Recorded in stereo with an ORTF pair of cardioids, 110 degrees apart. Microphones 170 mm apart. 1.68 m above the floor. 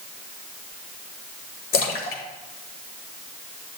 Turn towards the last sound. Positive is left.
turn(degrees=65)